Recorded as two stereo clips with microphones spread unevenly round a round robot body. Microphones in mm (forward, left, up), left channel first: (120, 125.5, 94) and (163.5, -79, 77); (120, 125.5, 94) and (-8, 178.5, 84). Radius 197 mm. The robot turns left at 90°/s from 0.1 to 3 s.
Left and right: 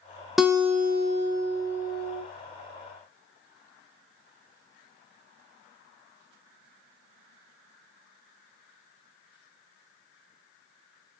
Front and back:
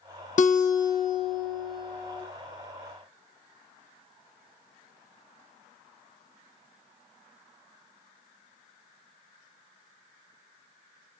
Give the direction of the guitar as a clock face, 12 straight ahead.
12 o'clock.